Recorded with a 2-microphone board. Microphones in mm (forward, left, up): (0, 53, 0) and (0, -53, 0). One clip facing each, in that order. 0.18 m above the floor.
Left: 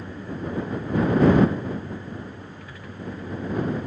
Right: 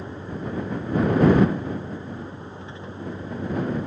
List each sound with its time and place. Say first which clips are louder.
0.0 s a vehicle: even; 25° right (ahead or behind)